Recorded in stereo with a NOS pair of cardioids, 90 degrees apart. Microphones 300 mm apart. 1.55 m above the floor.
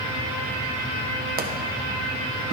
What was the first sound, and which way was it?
A pop, 30° right.